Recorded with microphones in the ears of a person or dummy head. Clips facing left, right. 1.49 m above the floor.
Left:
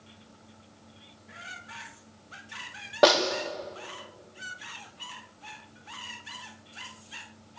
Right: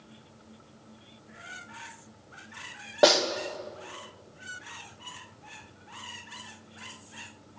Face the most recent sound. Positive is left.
turn(degrees=-10)  # may be behind; listen again after turning